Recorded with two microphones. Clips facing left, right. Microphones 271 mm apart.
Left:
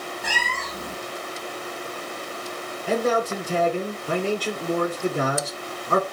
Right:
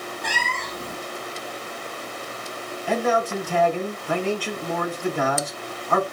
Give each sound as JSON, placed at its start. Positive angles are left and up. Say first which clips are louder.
{"t": 0.2, "sound": "a cat meowing", "louder": "even", "side_deg": 5, "distance_m": 0.7}
{"t": 2.9, "sound": "a man speaking", "louder": "left 1 dB", "side_deg": 45, "distance_m": 2.5}